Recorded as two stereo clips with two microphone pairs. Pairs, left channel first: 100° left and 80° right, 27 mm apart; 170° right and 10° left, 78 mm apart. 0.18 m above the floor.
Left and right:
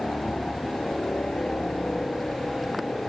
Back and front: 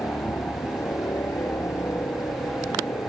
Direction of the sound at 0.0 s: 140° left.